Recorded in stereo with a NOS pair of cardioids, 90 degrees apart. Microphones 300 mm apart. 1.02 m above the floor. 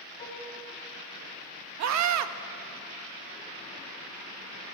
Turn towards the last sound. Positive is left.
turn(degrees=-70)